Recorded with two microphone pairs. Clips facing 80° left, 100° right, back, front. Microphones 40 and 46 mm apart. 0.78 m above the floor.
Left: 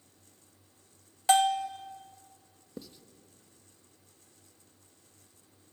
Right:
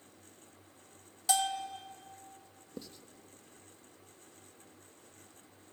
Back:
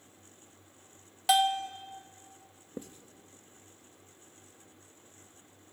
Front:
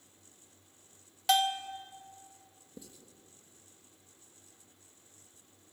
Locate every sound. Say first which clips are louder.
1.3 s a bell: left 8 dB, back 3 dB; 95° left, 1.2 m
2.8 s writing: left 1 dB, back 8 dB; 165° left, 1.2 m